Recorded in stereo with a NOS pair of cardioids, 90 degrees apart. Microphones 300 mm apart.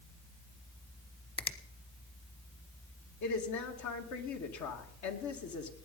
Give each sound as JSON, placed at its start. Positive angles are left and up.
{"t": 1.4, "sound": "a finger snap", "azimuth_deg": 20, "distance_m": 1.2}
{"t": 3.2, "sound": "a woman speaking", "azimuth_deg": 70, "distance_m": 2.5}